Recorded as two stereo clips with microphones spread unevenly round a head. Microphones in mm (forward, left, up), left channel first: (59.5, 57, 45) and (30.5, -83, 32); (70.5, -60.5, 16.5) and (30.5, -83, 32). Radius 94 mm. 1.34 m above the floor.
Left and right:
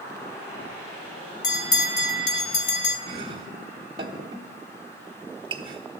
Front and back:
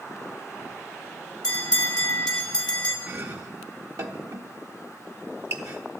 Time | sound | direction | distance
1.4 | a bell | 90° left | 1.5 m
3.1 | chopping | 170° right | 0.9 m